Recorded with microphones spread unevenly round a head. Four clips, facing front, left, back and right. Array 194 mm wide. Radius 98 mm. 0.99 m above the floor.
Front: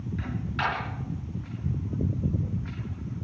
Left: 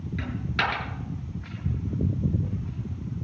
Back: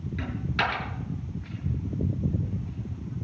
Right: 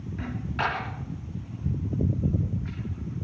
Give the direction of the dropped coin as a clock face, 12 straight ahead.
8 o'clock.